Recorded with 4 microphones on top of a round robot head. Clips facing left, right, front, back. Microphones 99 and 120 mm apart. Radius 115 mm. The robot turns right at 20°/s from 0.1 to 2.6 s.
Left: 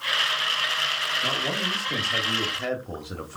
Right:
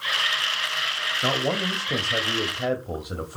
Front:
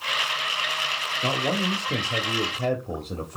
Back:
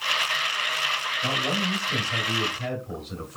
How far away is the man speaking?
About 1.4 m.